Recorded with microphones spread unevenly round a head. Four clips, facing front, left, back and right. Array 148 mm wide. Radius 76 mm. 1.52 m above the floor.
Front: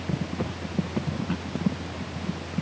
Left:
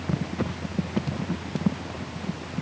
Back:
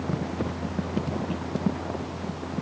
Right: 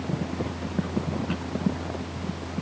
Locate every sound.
Only background noise.